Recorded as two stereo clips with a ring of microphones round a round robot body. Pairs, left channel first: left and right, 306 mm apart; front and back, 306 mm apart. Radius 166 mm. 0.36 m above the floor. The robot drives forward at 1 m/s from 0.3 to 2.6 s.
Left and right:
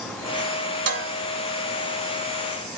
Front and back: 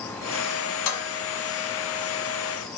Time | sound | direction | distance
0.9 | dishes clattering | 40° right | 2 m